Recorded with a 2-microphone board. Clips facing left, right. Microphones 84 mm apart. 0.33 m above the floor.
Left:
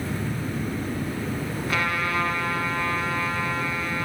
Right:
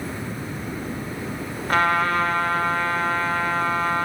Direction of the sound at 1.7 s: 35° right (ahead or behind).